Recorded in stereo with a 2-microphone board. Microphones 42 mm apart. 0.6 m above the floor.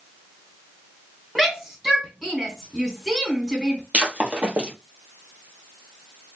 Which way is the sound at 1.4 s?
5° right (ahead or behind).